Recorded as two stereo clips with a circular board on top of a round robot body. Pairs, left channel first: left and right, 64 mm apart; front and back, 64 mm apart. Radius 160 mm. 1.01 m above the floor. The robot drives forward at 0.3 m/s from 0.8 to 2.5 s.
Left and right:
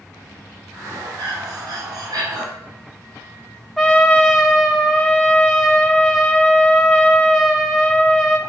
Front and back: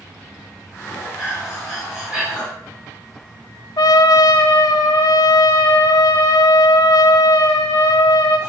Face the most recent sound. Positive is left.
turn(degrees=0)